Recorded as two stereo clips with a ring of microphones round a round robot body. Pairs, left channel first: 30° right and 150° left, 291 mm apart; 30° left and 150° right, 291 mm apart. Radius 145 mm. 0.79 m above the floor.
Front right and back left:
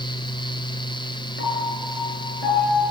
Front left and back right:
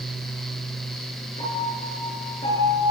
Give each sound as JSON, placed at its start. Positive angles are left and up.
{"t": 1.4, "sound": "a piano", "azimuth_deg": -40, "distance_m": 9.5}